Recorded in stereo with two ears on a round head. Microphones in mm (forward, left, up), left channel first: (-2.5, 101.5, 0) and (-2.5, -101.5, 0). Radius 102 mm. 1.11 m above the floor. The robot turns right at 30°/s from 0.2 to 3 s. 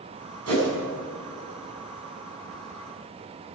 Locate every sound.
0.5 s a whoosh: 75° right (ahead or behind), 7 m; by 0.7 s 70° right (ahead or behind), 7 m